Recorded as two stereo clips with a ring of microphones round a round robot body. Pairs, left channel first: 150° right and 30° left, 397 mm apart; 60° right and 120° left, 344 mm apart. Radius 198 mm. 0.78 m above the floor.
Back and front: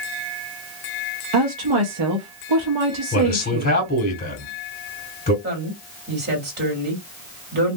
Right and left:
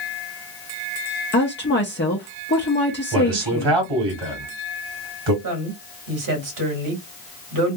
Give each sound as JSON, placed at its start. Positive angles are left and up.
{"t": 1.3, "sound": "a woman speaking", "azimuth_deg": 0, "distance_m": 1.0}
{"t": 3.1, "sound": "a man speaking", "azimuth_deg": 145, "distance_m": 1.9}
{"t": 5.4, "sound": "a woman speaking", "azimuth_deg": 95, "distance_m": 2.0}